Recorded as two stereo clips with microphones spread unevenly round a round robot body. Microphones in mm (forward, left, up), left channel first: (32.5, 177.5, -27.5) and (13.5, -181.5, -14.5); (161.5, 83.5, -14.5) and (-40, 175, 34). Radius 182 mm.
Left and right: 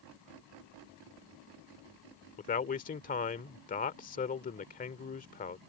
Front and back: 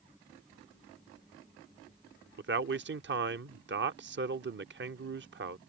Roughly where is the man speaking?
Behind left.